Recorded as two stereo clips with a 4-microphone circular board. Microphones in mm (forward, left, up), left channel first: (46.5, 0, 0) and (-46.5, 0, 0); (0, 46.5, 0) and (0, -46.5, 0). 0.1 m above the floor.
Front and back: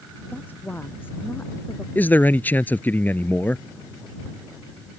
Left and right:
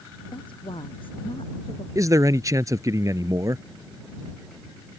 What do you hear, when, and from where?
0.3 s a woman speaking: 70° left; by 1.9 s 65° left
1.9 s a man speaking: 60° right